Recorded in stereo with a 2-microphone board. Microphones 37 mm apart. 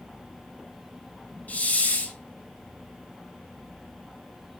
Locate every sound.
1.5 s a hiss: 50° left (ahead or behind), 0.5 m